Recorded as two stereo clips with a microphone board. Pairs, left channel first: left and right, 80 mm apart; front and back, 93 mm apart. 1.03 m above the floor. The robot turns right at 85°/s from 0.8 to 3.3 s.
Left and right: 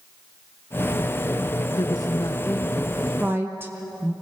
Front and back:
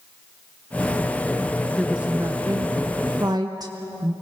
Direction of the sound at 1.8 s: 85° left.